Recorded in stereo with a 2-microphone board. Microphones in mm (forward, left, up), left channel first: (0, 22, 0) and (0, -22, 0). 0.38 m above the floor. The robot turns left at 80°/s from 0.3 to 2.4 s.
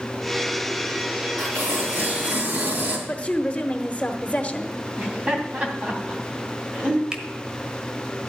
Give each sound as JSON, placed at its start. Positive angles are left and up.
{"t": 1.4, "sound": "tearing paper", "azimuth_deg": -60, "distance_m": 4.0}
{"t": 3.1, "sound": "a woman speaking", "side_deg": 30, "distance_m": 1.1}
{"t": 5.0, "sound": "laughter", "side_deg": -20, "distance_m": 3.0}
{"t": 7.1, "sound": "a finger snap", "side_deg": -20, "distance_m": 1.4}